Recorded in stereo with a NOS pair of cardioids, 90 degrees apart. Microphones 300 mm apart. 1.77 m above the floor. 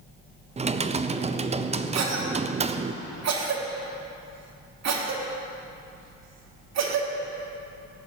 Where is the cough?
60° right, 3.5 m.